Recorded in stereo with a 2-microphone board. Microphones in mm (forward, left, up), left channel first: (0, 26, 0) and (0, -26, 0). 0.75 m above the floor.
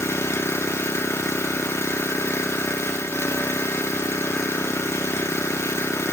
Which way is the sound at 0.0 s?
60° left (ahead or behind).